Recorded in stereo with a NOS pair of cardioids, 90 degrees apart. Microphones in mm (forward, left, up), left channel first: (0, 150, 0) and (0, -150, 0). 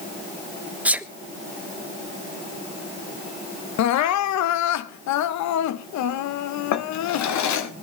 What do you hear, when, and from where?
0.8 s a sneeze: 5° right, 1.1 m
3.8 s crying: 70° left, 0.7 m
6.7 s a drawer: 70° left, 1.2 m